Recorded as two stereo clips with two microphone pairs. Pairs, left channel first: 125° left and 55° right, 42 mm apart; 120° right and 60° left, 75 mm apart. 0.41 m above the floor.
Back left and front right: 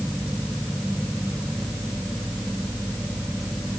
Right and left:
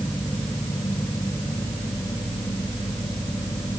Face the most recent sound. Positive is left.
No sound to turn to.